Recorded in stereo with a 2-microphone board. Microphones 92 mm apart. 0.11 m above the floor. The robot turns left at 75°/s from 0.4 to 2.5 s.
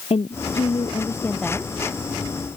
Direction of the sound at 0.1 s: 85° left.